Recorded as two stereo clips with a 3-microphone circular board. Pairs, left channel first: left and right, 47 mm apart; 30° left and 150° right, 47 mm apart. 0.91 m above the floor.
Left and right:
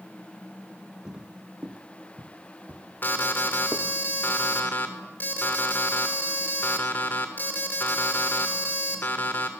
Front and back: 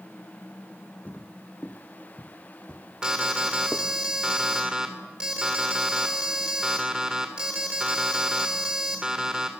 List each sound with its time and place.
1.1 s footsteps: 20° right, 2.5 m; by 3.9 s 50° right, 3 m
3.0 s an alarm: 135° left, 3 m